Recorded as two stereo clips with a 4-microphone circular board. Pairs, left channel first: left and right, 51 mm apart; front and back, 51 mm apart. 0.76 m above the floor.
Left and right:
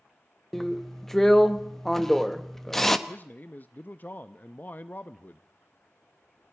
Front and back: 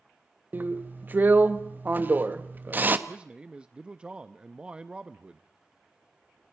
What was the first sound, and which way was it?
A drill, 170° left.